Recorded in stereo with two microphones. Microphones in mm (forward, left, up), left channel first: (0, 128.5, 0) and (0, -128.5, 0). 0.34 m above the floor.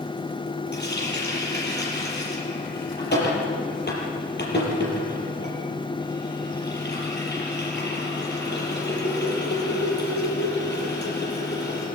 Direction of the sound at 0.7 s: 40° left (ahead or behind).